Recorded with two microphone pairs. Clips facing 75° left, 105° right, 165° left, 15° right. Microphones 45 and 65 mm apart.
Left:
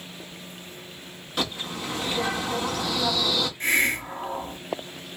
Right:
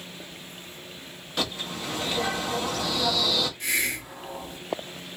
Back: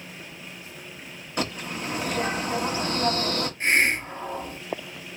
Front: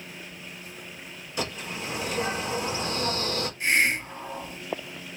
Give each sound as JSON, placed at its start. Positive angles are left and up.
{"t": 1.4, "sound": "a bird", "azimuth_deg": 160, "distance_m": 1.4}
{"t": 3.6, "sound": "a hiss", "azimuth_deg": 120, "distance_m": 1.0}